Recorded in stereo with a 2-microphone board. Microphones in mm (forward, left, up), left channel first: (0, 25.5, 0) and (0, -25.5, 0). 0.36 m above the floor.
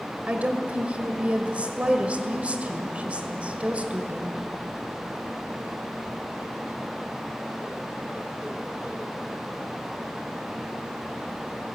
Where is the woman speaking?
25° right (ahead or behind), 1.8 m.